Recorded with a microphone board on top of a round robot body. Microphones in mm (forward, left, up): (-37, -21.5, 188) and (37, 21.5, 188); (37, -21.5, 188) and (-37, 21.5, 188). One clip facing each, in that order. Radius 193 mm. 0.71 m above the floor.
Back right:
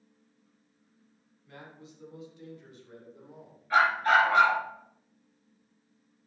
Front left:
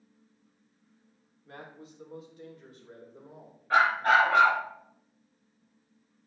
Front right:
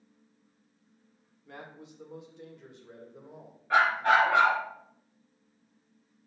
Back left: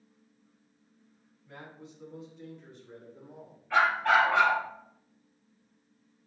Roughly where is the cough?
No cough in this recording.